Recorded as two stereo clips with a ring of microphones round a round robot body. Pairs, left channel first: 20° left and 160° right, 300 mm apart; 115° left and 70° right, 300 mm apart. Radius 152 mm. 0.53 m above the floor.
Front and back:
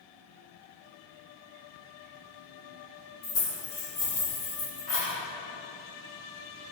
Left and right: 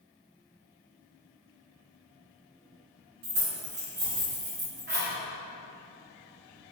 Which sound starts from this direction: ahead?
Keys jangling, at 3.2 s.